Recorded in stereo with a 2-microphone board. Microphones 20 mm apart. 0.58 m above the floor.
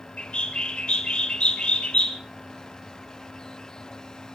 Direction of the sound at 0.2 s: 65° left (ahead or behind).